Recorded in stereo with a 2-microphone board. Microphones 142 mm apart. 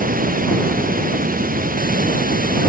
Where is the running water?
75° right (ahead or behind).